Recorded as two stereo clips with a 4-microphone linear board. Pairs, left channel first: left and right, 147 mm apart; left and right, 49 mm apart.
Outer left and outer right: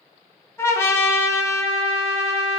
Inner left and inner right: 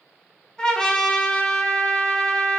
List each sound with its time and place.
0.6 s a trumpet: 20° left (ahead or behind), 0.8 m